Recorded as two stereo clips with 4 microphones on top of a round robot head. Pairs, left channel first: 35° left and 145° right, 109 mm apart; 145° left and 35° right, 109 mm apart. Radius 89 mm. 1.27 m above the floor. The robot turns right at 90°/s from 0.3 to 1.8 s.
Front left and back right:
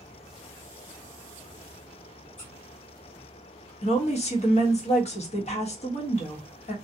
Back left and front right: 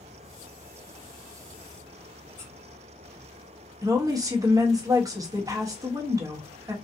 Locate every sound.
2.4 s a squeak: 75° left, 1.5 m
3.8 s a woman speaking: 20° left, 1.1 m